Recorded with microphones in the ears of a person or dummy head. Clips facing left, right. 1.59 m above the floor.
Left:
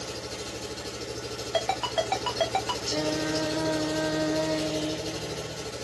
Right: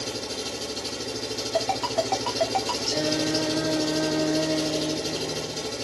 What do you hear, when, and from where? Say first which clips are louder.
0.0 s an engine running: right 4 dB; 80° right, 0.9 m
1.5 s a ringtone: right 2 dB; 20° left (ahead or behind), 1.0 m
2.9 s singing: right 2 dB; 15° right (ahead or behind), 0.5 m